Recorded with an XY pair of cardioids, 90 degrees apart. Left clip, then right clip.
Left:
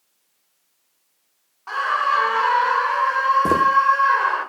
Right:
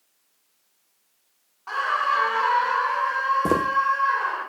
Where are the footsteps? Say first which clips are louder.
Left 5 dB; 5° left, 4.5 m.